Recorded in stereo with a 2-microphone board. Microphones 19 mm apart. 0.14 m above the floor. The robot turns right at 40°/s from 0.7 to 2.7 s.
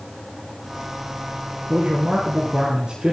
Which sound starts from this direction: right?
A man speaking, at 1.7 s.